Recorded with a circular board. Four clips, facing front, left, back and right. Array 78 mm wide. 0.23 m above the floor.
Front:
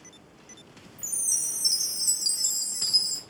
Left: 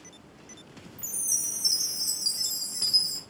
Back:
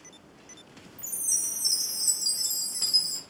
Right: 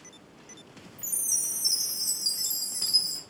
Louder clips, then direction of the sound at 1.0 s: Left 1 dB, front 2 dB; 15° left.